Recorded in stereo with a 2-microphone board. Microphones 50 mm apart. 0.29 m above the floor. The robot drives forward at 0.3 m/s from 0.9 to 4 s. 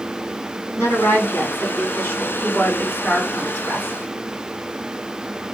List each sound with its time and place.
0.8 s a woman speaking: 55° left (ahead or behind), 2 m; by 3.9 s 40° left (ahead or behind), 2.5 m